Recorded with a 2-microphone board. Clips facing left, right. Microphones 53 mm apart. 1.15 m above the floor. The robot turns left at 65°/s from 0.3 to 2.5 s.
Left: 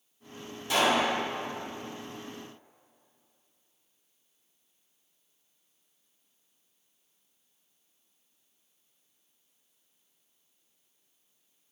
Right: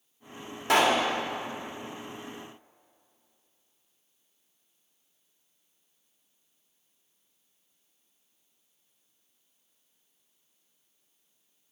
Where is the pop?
70° right (ahead or behind), 1.5 m; by 1.0 s 60° right (ahead or behind), 1.5 m.